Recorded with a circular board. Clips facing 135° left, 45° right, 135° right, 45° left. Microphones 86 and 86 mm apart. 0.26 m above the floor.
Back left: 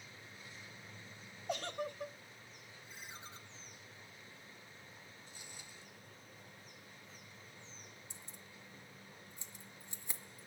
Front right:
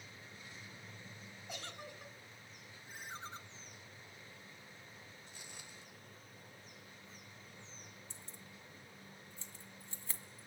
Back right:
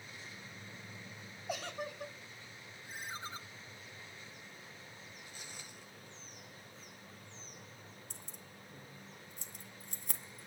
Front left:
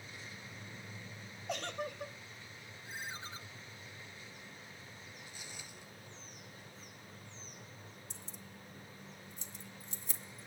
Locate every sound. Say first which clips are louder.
1.5 s a giggle: back left 10 dB, front left 1 dB; 140° left, 0.9 m
2.9 s a ringtone: front right 6 dB, back right 1 dB; 90° right, 1.8 m
5.3 s footsteps: front right 1 dB, even; 85° right, 7.5 m
8.1 s keys jangling: even, front left 1 dB; 155° right, 1.7 m